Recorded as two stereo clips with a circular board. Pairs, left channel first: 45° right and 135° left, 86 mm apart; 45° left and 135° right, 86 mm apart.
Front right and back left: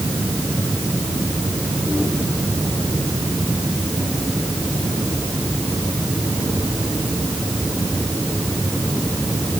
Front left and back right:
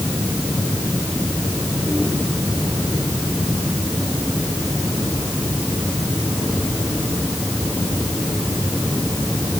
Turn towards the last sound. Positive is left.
No sound to turn to.